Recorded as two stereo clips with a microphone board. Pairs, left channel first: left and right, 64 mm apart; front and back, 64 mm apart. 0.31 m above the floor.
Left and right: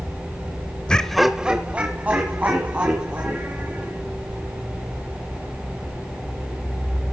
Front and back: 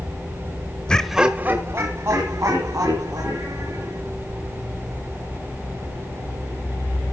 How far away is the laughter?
About 0.9 m.